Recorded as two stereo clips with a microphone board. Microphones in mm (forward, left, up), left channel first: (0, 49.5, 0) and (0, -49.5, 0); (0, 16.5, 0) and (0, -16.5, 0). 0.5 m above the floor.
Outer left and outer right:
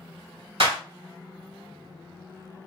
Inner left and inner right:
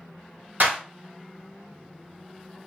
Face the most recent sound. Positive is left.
turn(degrees=-65)  # may be behind; listen again after turning